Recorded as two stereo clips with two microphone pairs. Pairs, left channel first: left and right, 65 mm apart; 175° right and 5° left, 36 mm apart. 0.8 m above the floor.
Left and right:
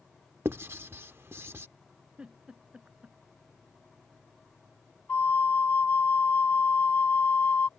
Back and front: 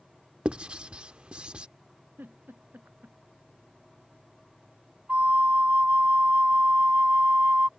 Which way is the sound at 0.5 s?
50° right.